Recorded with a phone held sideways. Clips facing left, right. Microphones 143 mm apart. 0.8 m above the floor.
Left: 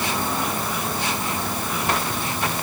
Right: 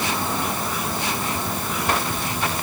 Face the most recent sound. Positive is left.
No sound to turn to.